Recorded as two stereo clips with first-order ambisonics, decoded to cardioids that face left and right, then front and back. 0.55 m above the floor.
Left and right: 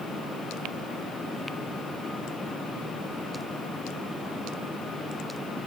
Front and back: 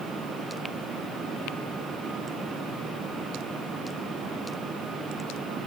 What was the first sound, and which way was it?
Only background noise.